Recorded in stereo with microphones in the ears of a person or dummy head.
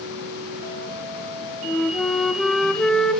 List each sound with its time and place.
1.6 s a flute: 5° left (ahead or behind), 0.8 m